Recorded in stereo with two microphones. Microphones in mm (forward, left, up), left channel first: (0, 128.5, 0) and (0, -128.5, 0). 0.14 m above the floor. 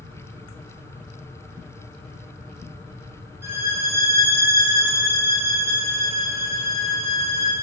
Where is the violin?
10° right (ahead or behind), 3 m.